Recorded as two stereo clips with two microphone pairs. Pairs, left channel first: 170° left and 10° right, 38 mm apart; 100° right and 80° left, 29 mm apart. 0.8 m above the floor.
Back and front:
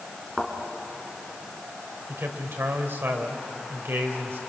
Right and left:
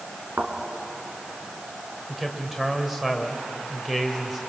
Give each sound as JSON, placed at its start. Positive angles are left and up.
{"t": 0.4, "sound": "a thud", "azimuth_deg": 80, "distance_m": 3.0}
{"t": 2.1, "sound": "a man speaking", "azimuth_deg": 0, "distance_m": 3.0}